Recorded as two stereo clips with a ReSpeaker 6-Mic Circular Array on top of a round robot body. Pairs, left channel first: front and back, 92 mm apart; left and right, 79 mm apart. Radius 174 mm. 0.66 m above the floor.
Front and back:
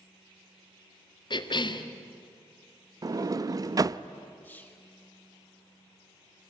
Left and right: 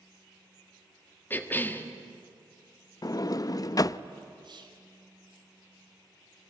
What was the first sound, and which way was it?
A cough, 25° left.